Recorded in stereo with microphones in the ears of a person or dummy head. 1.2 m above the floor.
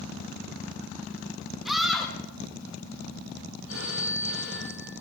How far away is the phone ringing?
About 8.5 m.